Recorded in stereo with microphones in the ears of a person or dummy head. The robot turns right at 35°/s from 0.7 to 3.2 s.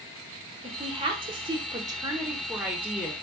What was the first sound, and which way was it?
A woman speaking, 25° right (ahead or behind).